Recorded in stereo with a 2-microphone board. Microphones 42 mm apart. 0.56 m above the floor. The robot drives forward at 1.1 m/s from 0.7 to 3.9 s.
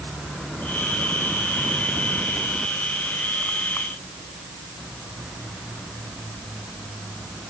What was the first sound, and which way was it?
Only background noise.